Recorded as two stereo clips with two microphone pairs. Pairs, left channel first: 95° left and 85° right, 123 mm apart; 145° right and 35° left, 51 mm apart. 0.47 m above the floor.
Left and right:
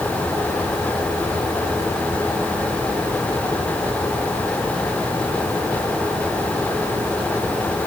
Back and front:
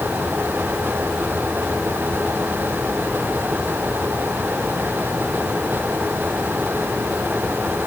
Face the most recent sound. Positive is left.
No sound to turn to.